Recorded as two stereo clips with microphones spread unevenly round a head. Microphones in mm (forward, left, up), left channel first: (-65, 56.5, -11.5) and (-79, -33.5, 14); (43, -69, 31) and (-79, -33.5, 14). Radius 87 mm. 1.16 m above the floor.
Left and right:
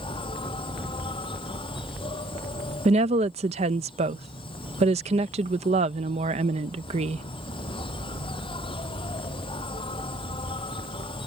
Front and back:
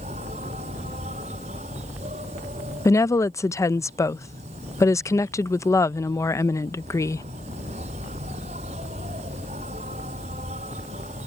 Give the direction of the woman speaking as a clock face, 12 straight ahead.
3 o'clock.